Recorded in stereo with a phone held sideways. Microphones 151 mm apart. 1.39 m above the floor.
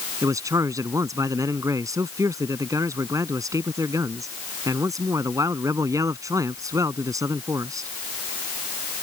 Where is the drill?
No drill in this recording.